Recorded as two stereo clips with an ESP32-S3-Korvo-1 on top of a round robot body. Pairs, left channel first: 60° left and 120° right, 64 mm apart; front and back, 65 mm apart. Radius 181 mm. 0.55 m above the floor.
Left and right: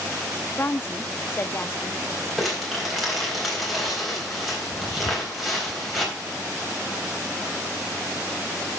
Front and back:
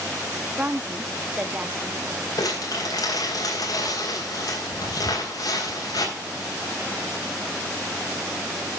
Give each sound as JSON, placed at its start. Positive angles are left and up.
{"t": 0.6, "sound": "a woman speaking", "azimuth_deg": 115, "distance_m": 1.1}
{"t": 2.4, "sound": "crumpling", "azimuth_deg": -30, "distance_m": 3.5}
{"t": 5.0, "sound": "a cupboard door", "azimuth_deg": 60, "distance_m": 1.3}